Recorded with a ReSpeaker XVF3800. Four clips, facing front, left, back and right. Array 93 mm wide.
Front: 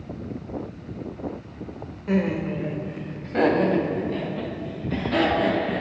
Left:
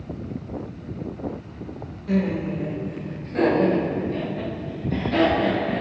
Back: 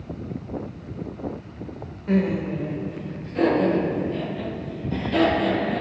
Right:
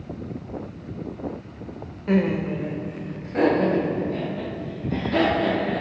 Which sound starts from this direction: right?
Laughter, at 2.1 s.